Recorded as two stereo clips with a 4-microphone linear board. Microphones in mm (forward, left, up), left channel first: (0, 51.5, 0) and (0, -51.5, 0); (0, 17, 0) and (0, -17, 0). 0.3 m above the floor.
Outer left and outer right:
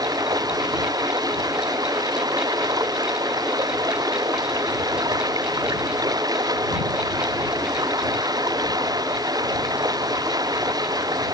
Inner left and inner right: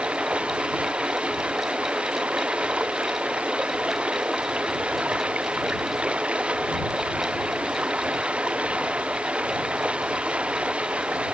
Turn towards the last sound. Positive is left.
turn(degrees=-40)  # may be behind; listen again after turning